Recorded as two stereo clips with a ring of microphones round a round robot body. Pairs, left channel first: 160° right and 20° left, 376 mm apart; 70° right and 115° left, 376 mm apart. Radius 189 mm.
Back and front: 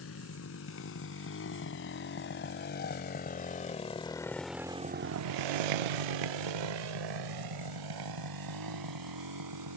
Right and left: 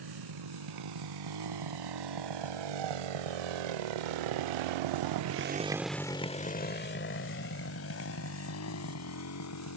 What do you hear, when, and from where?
0.0 s a motorcycle: 145° left; by 9.8 s 20° right